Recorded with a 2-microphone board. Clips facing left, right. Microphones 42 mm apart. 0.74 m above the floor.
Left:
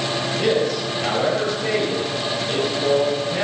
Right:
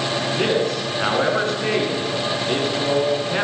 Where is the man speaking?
55° right (ahead or behind), 6.5 m.